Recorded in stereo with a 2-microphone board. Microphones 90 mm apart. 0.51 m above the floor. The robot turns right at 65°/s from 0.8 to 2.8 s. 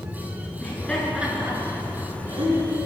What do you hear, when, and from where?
0.6 s laughter: 15° left (ahead or behind), 8 m; by 2.9 s 65° right (ahead or behind), 8 m